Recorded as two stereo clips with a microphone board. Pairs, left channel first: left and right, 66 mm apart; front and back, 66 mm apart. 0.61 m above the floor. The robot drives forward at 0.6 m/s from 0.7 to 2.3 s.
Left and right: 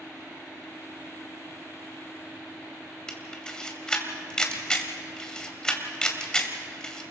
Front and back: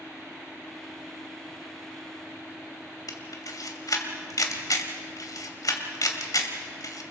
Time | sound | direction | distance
3.1 | a camera shutter | 10° left | 2 m